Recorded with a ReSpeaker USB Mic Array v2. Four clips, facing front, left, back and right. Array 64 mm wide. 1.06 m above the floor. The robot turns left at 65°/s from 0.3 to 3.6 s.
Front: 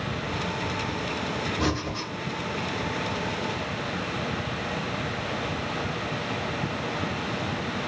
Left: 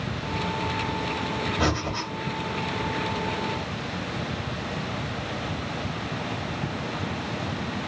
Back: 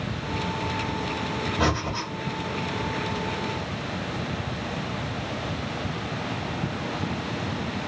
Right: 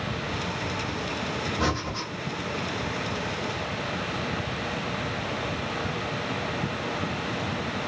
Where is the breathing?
155° left, 1.1 m; by 2.1 s 125° left, 1.1 m.